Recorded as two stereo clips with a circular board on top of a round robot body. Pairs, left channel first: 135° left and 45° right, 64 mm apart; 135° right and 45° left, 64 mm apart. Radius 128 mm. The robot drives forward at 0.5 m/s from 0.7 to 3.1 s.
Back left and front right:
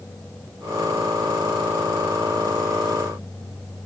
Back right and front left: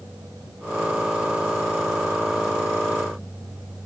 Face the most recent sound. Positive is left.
No sound to turn to.